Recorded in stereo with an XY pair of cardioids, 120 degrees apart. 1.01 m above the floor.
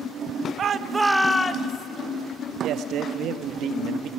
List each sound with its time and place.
0.6 s a shout: 45° right, 1.1 m; by 1.9 s 55° left, 1.4 m
2.6 s a man speaking: 65° right, 1.4 m